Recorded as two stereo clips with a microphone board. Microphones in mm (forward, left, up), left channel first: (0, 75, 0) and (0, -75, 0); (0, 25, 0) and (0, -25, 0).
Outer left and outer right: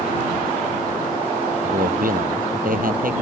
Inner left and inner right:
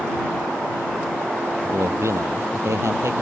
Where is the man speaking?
70° right (ahead or behind).